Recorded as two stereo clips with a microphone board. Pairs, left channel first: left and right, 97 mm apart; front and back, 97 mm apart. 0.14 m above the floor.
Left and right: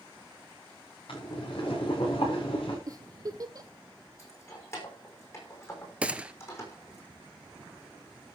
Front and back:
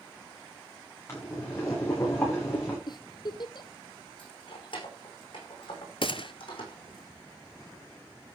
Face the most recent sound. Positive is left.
turn(degrees=-10)